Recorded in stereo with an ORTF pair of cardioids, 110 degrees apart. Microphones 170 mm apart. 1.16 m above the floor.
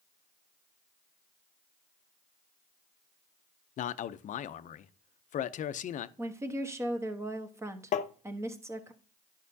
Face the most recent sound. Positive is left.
turn(degrees=45)